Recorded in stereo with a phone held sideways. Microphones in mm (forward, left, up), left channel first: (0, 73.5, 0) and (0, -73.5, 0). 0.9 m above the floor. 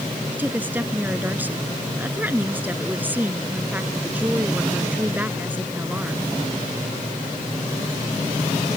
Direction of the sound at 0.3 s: 10° right (ahead or behind).